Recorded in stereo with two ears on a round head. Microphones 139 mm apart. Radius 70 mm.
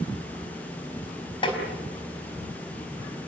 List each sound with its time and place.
1.4 s tapping: 35° left (ahead or behind), 4 m